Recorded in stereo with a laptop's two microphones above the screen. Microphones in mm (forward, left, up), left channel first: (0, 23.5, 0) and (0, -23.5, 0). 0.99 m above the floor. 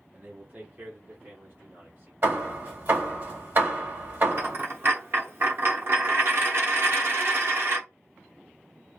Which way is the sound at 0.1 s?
25° right (ahead or behind).